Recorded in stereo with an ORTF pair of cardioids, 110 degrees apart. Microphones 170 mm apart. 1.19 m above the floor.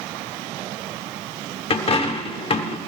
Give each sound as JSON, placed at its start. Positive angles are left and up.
{"t": 1.7, "sound": "a dropped coin", "azimuth_deg": 35, "distance_m": 1.7}